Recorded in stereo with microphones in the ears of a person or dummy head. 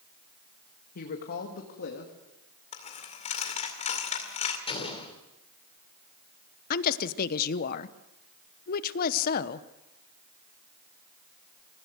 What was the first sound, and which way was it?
A woman speaking, 55° left (ahead or behind).